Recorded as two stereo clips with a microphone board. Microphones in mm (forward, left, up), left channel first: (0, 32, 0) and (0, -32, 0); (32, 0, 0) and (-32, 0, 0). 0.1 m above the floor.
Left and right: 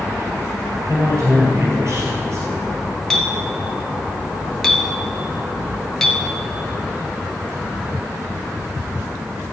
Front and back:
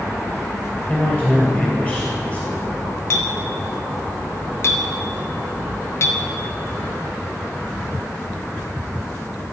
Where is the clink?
10° left, 0.9 m.